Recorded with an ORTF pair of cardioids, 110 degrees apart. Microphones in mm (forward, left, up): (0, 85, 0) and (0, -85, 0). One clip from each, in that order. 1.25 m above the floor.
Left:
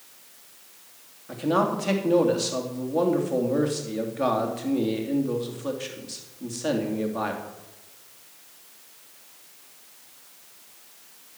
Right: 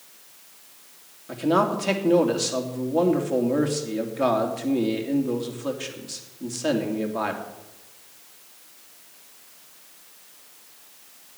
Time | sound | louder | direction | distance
1.3 | a man speaking | right 2 dB | 10° right | 3 m